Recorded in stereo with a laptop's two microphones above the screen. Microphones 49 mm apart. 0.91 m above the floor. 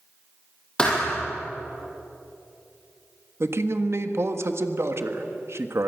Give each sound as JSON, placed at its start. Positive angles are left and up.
{"t": 0.8, "sound": "a thud", "side_deg": 15, "distance_m": 4.5}
{"t": 3.4, "sound": "a man speaking", "side_deg": -60, "distance_m": 1.5}